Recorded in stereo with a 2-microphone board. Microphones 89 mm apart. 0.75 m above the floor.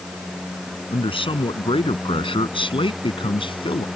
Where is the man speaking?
80° left; by 3.9 s 70° left (ahead or behind).